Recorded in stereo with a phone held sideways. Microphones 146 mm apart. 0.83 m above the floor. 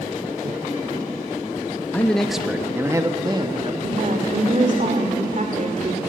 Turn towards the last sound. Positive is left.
turn(degrees=-55)  # may be behind; listen again after turning